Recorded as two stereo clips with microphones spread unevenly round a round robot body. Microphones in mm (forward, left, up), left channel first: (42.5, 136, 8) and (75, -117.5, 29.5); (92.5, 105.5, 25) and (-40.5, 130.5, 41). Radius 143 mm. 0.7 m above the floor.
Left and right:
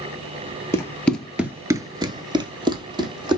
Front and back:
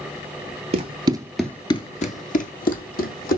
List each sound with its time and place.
0.7 s running footsteps: straight behind, 1.0 m; by 3.4 s 10° right, 2 m